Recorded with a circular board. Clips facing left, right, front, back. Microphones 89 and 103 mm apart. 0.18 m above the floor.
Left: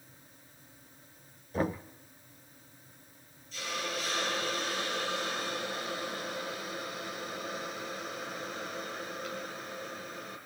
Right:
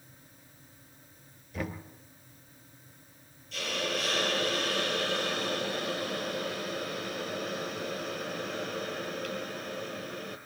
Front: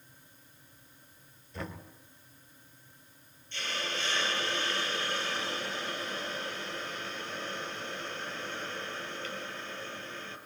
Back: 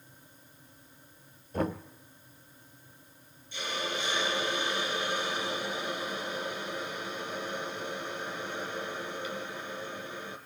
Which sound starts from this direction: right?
A hiss, at 3.5 s.